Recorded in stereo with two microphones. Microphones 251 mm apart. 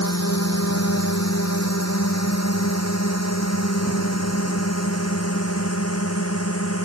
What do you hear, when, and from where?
0.0 s a drone: 70° left (ahead or behind); by 6.9 s 65° left (ahead or behind)